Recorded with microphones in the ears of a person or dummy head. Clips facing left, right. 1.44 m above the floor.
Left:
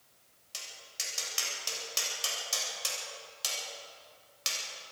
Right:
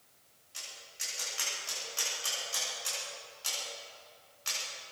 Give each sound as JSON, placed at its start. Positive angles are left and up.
{"t": 0.5, "sound": "tapping", "side_deg": 80, "distance_m": 8.5}